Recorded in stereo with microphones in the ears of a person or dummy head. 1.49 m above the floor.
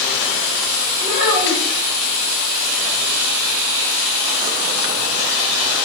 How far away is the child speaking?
About 3.5 m.